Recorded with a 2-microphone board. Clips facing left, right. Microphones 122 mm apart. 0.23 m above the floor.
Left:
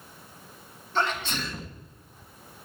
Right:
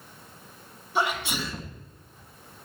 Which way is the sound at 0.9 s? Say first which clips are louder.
Right 1 dB; 10° right (ahead or behind).